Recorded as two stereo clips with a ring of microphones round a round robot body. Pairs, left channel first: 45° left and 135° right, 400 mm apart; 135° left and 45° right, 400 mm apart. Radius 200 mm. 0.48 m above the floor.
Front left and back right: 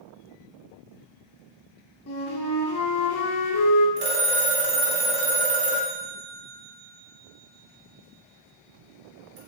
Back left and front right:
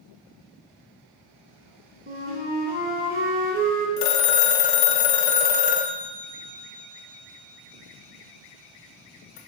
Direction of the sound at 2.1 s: 10° left.